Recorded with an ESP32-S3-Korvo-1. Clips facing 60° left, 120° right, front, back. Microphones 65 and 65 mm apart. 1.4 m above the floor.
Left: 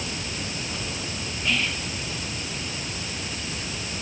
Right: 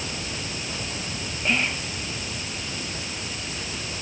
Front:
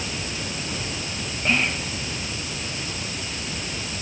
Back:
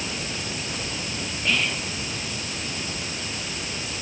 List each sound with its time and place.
1.4 s whispering: 60° right, 1.6 m